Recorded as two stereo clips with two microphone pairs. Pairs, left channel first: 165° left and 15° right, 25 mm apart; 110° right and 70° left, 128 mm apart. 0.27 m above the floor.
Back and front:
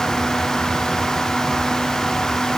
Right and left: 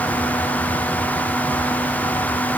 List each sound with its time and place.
Only background noise.